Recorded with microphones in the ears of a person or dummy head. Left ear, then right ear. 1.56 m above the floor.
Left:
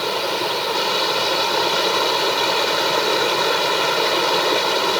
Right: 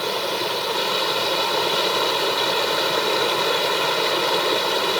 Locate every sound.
0.0 s running water: 10° left (ahead or behind)